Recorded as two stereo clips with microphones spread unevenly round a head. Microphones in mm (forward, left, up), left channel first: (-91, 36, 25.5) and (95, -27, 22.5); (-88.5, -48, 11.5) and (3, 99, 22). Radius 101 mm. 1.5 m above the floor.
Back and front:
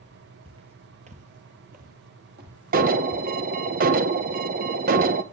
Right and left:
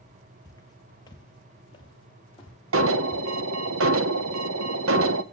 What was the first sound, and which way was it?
Footsteps, 60° right.